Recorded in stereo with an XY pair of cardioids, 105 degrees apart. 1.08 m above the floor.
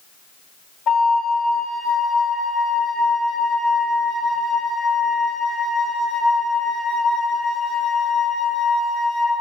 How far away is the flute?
About 2.5 m.